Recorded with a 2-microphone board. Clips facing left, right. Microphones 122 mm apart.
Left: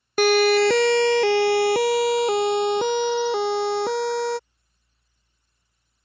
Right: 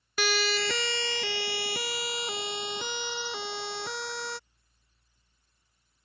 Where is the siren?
50° left (ahead or behind); by 4.4 s 55° left (ahead or behind).